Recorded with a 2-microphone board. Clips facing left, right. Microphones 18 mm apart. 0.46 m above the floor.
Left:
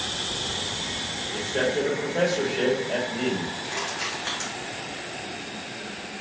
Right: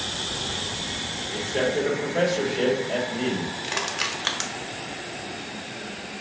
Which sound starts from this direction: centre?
A man speaking, at 1.3 s.